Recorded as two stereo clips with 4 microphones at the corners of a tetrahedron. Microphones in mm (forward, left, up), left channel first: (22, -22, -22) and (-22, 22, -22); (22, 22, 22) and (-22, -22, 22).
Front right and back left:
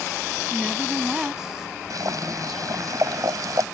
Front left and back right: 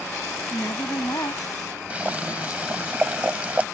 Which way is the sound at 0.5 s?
55° left.